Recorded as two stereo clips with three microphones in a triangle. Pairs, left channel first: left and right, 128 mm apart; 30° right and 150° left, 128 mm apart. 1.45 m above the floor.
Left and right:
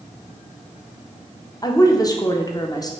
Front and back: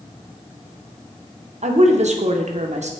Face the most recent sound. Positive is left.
turn(degrees=145)